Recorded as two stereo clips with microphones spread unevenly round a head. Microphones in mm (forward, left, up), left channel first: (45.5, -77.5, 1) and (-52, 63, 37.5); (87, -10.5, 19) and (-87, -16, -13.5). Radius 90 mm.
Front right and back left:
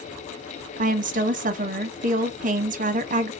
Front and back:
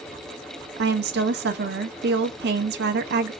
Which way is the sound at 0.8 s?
170° left.